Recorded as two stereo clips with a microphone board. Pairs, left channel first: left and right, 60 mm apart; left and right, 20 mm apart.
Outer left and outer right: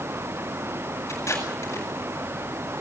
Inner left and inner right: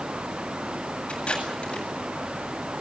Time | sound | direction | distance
1.1 | tape being pulled | 55° left (ahead or behind) | 8 m